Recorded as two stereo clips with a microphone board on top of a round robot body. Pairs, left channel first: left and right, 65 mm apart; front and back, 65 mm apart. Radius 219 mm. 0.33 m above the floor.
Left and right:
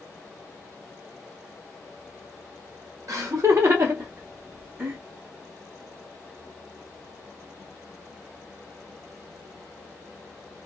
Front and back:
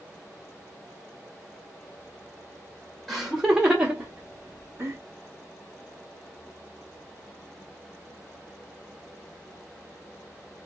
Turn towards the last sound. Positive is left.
turn(degrees=-155)